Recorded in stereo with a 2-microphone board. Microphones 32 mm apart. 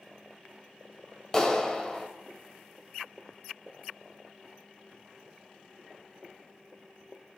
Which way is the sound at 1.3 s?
20° left (ahead or behind).